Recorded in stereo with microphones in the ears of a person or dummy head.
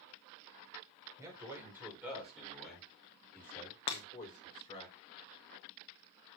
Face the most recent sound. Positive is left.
turn(degrees=25)  # may be behind; listen again after turning